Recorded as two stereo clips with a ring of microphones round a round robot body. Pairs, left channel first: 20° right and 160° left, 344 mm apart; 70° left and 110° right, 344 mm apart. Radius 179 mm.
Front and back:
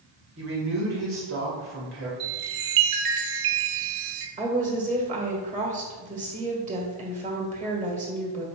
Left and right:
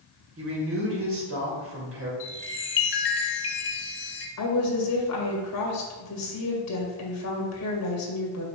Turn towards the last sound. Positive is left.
turn(degrees=95)